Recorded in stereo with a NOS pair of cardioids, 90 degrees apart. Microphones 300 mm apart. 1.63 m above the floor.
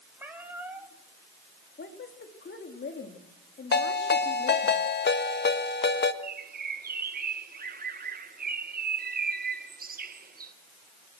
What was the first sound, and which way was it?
A cat meowing, 5° right.